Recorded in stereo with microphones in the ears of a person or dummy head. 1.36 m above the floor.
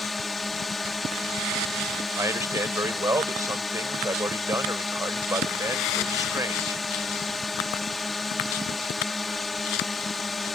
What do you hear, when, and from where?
0.0 s a drone: centre (ahead or behind)
2.2 s a man speaking: 15° right (ahead or behind)